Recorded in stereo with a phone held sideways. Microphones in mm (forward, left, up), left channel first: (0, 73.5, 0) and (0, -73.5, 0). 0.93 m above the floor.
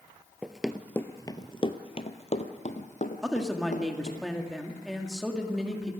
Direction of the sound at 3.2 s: Centre (ahead or behind).